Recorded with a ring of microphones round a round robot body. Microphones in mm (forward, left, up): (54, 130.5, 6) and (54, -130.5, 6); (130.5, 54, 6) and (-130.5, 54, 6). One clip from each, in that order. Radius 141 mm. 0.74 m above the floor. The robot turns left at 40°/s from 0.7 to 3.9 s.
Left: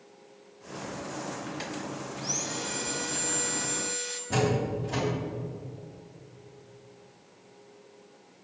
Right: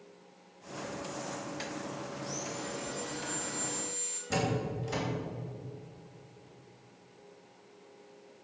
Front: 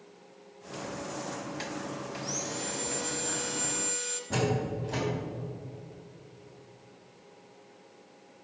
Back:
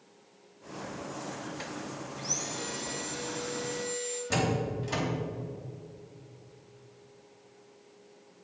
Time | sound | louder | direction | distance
2.2 | sawing | left 9 dB, back 3 dB | 105° left | 1.8 m
4.3 | a door slam | left 5 dB, even | 140° right | 3 m